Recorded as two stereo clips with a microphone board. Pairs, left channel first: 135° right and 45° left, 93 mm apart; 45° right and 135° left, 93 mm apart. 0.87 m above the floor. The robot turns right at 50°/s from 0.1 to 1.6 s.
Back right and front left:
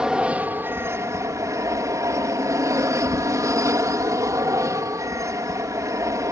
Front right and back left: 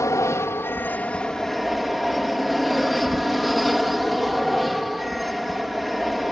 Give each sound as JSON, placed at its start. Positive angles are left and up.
{"t": 0.0, "sound": "an aircraft", "azimuth_deg": -30}